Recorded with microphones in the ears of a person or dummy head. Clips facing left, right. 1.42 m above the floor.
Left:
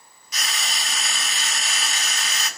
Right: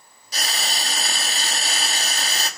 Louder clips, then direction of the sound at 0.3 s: Right 3 dB; 40° right (ahead or behind).